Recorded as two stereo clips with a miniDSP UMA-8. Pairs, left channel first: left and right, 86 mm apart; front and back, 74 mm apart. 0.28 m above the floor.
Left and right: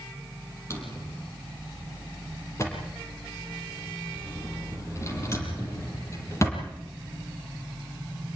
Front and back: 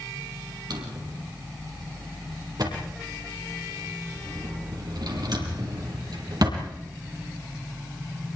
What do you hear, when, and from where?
0.7 s a drawer: 150° left, 5.5 m